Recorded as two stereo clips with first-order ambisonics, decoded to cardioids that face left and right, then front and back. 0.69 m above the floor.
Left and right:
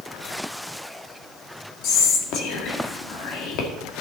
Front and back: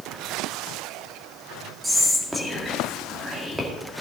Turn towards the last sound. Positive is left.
turn(degrees=95)